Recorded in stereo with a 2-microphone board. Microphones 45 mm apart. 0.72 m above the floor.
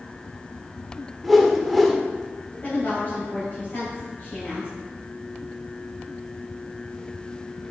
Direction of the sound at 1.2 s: Centre (ahead or behind).